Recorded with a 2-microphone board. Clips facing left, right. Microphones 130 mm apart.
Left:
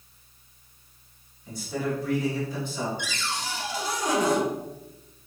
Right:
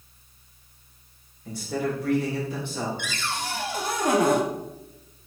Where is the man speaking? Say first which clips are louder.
Right 2 dB; 75° right (ahead or behind), 3 m.